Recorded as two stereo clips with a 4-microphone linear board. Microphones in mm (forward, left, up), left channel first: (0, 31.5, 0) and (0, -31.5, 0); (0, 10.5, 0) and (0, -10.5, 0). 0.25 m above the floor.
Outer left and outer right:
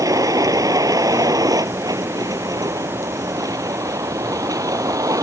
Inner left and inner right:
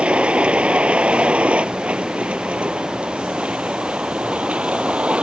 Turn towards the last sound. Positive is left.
turn(degrees=-70)  # may be behind; listen again after turning